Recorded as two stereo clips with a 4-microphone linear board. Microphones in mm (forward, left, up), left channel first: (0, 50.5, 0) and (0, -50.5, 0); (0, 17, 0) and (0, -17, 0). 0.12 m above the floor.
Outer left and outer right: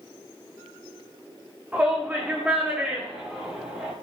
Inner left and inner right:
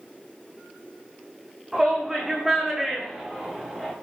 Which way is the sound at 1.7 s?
15° right (ahead or behind).